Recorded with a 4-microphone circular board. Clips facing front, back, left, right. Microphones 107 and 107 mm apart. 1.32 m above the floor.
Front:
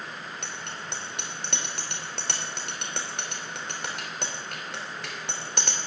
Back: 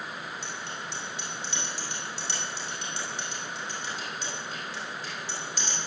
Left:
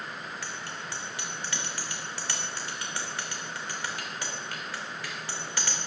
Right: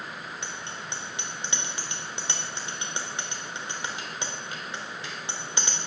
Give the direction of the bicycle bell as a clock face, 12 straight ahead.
1 o'clock.